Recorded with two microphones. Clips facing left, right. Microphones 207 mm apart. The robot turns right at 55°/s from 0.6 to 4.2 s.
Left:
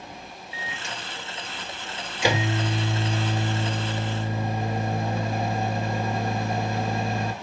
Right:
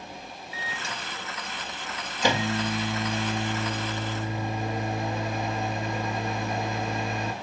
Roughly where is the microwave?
Right.